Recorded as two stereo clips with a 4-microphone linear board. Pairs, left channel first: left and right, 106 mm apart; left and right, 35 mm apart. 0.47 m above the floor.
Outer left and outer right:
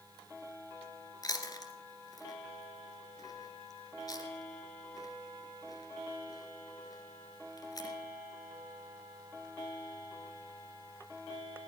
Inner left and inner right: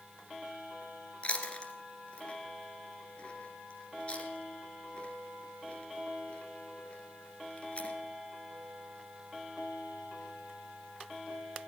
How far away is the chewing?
About 1.8 m.